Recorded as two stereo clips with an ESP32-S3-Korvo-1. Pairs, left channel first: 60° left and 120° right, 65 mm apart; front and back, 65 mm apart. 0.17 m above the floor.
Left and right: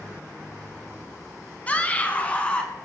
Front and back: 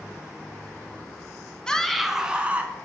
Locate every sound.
1.7 s a scream: 55° left, 1.4 m; by 2.7 s 125° left, 2.0 m